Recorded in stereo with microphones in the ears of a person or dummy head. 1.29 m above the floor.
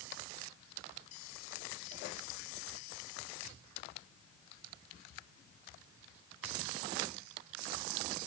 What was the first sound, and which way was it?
Only background noise.